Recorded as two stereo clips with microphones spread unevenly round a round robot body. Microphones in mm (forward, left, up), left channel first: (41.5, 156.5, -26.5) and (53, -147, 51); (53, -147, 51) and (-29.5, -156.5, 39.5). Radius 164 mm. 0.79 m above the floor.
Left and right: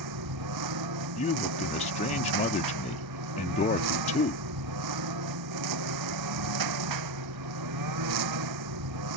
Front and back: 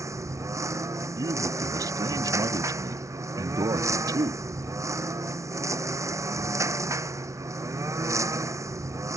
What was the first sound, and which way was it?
A lawn mower, 120° right.